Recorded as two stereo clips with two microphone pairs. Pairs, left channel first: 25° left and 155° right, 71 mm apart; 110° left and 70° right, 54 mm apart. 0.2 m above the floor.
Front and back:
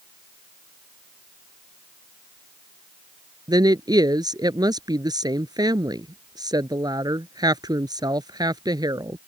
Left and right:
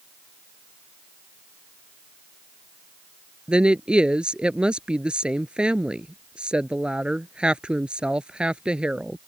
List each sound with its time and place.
3.5 s a woman speaking: 140° right